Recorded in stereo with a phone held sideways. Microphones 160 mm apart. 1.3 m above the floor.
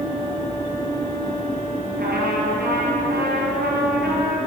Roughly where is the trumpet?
Right.